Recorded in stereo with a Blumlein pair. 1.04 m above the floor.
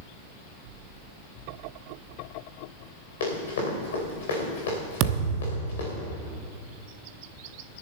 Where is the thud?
40° right, 0.9 m.